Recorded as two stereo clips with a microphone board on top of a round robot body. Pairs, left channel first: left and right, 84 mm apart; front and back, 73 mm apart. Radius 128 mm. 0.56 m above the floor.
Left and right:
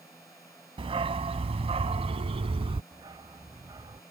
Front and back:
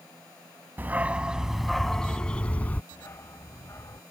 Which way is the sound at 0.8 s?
115° right.